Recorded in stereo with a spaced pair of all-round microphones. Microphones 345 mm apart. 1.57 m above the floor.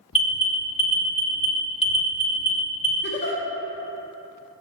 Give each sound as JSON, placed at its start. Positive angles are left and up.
{"t": 0.1, "sound": "an alarm", "side_deg": 65, "distance_m": 1.3}
{"t": 3.0, "sound": "a giggle", "side_deg": 30, "distance_m": 0.8}